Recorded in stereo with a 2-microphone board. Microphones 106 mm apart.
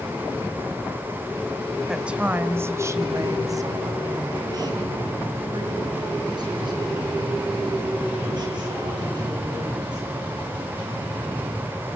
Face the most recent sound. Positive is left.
turn(degrees=-45)  # may be behind; listen again after turning